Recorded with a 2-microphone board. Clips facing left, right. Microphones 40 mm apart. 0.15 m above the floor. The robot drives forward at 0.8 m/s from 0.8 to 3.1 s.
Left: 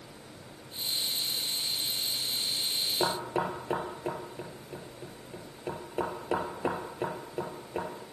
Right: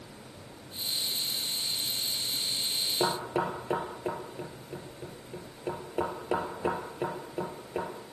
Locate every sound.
3.0 s knocking: centre (ahead or behind), 3 m